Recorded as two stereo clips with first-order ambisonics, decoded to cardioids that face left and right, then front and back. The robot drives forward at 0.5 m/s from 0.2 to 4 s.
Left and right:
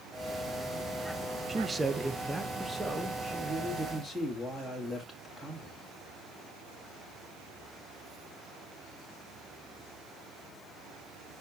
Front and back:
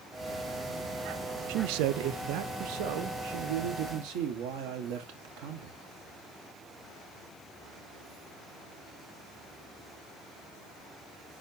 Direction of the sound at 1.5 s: 165° right.